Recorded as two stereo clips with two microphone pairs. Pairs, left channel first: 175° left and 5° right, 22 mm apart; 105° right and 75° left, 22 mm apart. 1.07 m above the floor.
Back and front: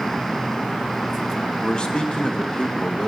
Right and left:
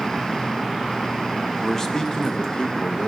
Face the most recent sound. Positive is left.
turn(degrees=-145)